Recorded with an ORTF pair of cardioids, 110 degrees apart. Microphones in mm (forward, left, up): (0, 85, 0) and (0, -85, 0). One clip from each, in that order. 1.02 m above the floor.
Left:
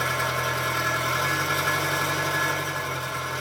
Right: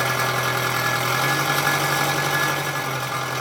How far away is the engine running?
About 0.8 m.